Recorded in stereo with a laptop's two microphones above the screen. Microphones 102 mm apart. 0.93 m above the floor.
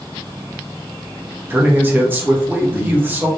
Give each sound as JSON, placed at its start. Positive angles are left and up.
{"t": 1.5, "sound": "a man speaking", "side_deg": -20, "distance_m": 0.9}